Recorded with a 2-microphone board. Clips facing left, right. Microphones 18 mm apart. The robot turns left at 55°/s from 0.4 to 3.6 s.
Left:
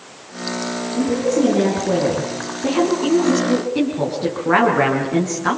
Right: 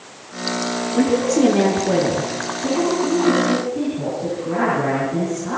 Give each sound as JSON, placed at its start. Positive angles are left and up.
{"t": 0.9, "sound": "a woman speaking", "azimuth_deg": -125, "distance_m": 6.5}